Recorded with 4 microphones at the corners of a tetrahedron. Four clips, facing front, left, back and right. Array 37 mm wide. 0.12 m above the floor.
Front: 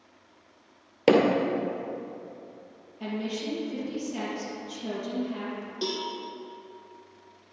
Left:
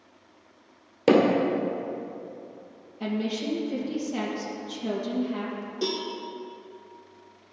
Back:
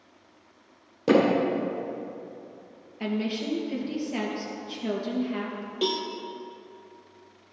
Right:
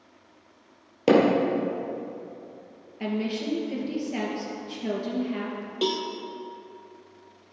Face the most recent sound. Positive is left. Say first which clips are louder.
# right 3 dB, back 4 dB
turn(degrees=-120)